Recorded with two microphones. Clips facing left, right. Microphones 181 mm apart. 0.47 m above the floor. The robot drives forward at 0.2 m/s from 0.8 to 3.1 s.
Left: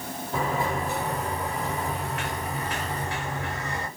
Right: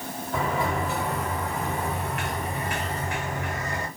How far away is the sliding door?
About 2.5 m.